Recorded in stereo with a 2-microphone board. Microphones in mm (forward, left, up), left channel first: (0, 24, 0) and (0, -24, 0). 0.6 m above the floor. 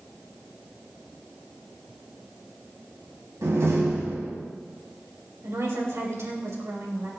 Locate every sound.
3.4 s a door slam: 80° right, 3.5 m
5.4 s a woman speaking: 70° right (ahead or behind), 3 m